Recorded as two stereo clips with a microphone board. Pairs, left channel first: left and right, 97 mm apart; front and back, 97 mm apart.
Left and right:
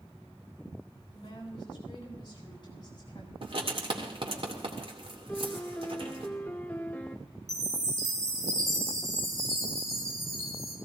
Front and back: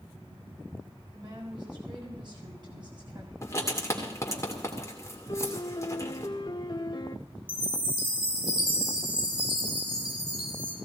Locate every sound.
1.1 s a woman speaking: 135° left, 7 m
3.4 s writing: 60° right, 2.5 m
5.3 s a piano: 25° left, 0.9 m
7.5 s a chime: 145° right, 4 m